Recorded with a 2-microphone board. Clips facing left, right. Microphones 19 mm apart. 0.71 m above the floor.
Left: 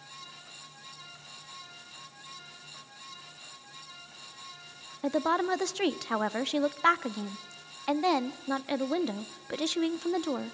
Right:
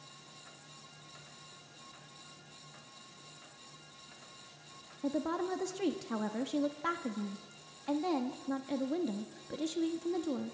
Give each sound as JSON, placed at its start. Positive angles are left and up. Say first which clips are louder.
{"t": 5.0, "sound": "a woman speaking", "louder": "left 7 dB", "side_deg": 50, "distance_m": 0.6}